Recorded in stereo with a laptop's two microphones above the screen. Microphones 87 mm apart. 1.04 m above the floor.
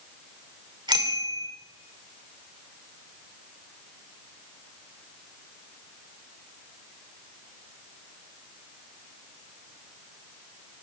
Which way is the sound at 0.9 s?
55° right (ahead or behind).